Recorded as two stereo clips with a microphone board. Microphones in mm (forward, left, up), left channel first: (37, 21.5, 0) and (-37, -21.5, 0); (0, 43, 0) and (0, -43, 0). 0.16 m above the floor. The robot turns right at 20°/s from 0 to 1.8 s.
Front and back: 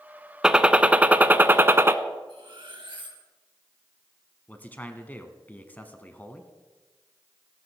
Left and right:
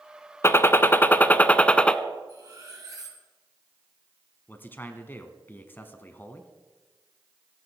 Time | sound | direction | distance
0.4 | a gunshot | 135° left | 0.6 m
2.3 | cutlery clinking | 135° right | 2.5 m
4.5 | a man speaking | 70° left | 1.1 m